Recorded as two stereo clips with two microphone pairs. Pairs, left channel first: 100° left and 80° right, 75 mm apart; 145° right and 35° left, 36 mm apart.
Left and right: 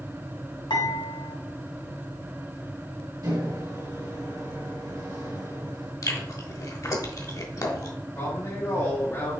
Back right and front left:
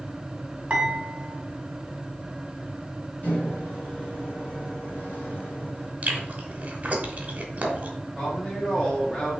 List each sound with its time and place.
0.7 s dishes clattering: 95° left, 2 m
3.2 s a microwave: 110° right, 2 m
6.0 s chewing: 75° left, 1.1 m
8.2 s a woman speaking: 145° left, 2 m